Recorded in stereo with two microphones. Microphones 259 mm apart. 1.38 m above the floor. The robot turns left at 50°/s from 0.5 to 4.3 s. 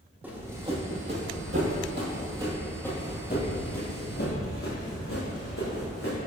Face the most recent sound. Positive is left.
turn(degrees=55)  # may be behind; listen again after turning